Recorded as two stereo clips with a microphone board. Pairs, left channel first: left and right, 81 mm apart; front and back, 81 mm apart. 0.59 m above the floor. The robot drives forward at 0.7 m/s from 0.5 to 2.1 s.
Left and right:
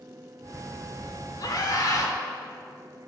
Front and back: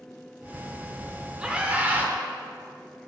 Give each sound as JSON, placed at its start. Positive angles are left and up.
{"t": 1.4, "sound": "a scream", "azimuth_deg": 105, "distance_m": 1.7}